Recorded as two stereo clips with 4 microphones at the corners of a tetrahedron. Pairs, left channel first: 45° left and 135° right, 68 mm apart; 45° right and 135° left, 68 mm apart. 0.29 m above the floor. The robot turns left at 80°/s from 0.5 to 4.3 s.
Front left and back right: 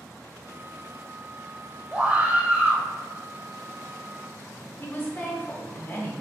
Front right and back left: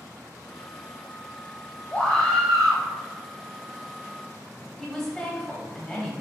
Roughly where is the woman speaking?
Ahead left.